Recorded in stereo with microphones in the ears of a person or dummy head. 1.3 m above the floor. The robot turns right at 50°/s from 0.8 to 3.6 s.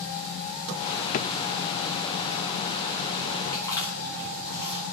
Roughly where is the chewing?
Left.